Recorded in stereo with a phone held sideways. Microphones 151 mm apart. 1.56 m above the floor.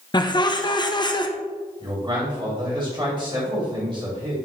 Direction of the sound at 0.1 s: 30° left (ahead or behind).